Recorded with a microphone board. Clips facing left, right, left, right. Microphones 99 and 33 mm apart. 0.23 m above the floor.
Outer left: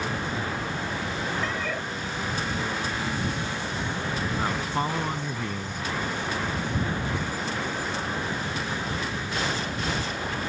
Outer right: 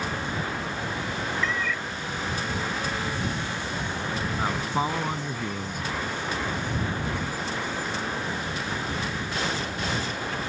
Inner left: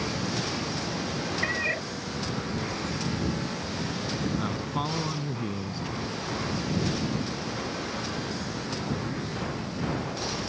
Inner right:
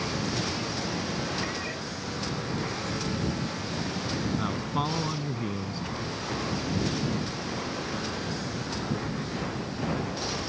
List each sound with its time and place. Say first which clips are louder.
1.4 s a cat meowing: outer right 1 dB, inner left 5 dB; 45° left (ahead or behind)
4.4 s a man speaking: outer right 2 dB, inner right 1 dB; 10° right (ahead or behind)